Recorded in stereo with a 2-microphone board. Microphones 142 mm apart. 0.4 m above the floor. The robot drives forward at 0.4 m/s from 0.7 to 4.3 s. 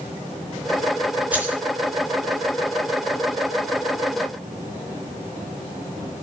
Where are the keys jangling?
10° right (ahead or behind), 3.5 m.